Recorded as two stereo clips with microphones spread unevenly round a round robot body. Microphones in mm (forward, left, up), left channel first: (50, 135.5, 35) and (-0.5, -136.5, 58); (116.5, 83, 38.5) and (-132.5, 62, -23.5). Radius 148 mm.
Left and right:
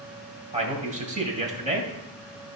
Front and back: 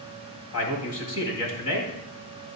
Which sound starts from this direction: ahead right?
A man speaking, at 0.5 s.